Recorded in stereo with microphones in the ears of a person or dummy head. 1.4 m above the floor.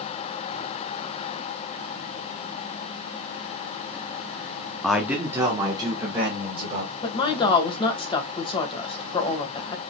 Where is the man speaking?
5° left (ahead or behind), 0.7 m; by 6.9 s 25° right (ahead or behind), 2.5 m.